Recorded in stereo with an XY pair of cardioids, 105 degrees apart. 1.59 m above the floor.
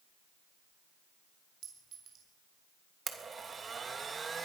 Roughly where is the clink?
Ahead right.